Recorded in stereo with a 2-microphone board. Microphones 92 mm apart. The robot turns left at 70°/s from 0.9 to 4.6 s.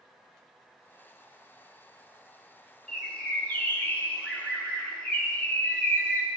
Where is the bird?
5° left (ahead or behind), 0.8 m; by 6.3 s 15° left (ahead or behind), 0.8 m.